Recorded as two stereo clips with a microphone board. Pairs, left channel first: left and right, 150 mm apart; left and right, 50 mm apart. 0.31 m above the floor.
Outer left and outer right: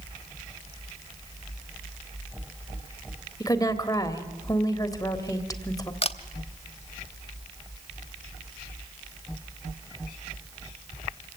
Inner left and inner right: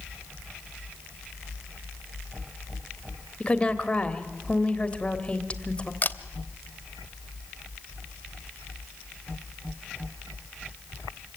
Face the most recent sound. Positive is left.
turn(degrees=40)  # may be behind; listen again after turning